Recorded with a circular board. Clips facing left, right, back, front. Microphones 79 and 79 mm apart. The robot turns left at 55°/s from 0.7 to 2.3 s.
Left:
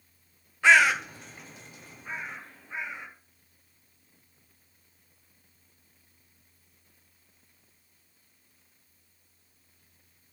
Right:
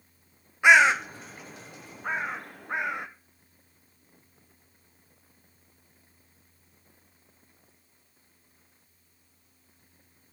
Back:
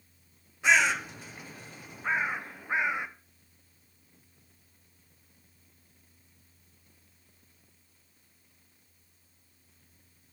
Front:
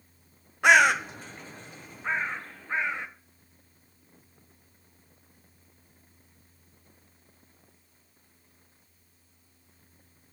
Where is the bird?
15° right, 0.8 m; by 3.1 s 105° right, 0.8 m.